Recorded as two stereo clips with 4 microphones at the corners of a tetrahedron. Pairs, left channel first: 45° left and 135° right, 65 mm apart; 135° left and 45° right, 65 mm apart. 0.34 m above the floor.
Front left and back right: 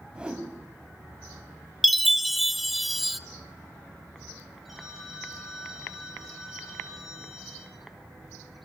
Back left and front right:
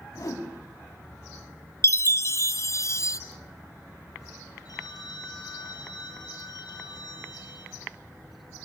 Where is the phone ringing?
135° left, 4.5 m.